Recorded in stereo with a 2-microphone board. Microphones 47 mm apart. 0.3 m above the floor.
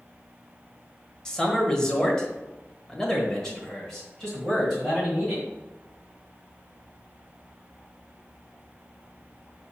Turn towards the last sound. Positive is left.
turn(degrees=5)  # may be behind; listen again after turning